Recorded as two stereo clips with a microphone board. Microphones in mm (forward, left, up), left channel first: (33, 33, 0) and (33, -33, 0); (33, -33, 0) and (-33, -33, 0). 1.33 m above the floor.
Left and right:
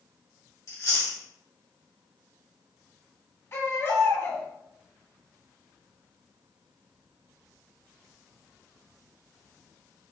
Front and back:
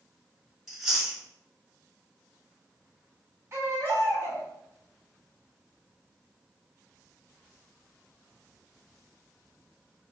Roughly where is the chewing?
Left.